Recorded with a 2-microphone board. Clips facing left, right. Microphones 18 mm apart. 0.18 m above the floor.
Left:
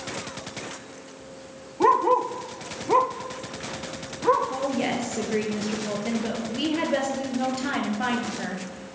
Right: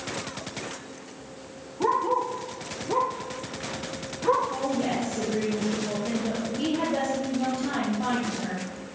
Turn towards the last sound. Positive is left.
turn(degrees=50)  # may be behind; listen again after turning